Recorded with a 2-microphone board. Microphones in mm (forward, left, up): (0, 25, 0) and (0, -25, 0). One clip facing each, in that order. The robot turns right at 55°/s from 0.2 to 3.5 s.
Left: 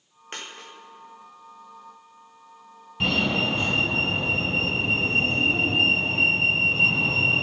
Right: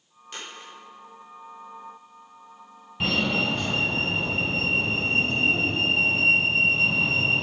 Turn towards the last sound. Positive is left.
turn(degrees=15)  # may be behind; listen again after turning